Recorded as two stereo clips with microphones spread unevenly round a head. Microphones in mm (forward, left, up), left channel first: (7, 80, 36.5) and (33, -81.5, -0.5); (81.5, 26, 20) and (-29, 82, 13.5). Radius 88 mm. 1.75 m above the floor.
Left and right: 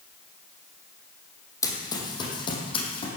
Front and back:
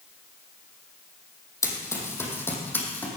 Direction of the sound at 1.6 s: 35° left.